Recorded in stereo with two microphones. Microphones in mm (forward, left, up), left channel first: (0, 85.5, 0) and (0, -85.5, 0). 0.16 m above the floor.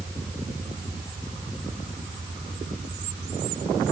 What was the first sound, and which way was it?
Only background noise.